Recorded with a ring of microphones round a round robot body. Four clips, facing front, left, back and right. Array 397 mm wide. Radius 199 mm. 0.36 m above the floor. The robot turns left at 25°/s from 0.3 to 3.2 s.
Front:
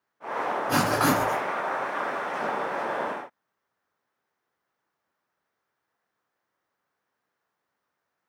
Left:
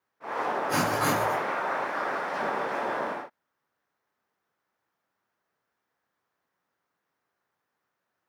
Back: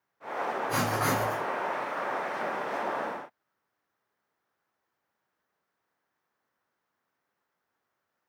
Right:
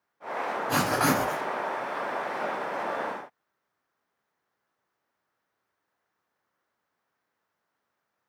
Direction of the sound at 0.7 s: 15° right.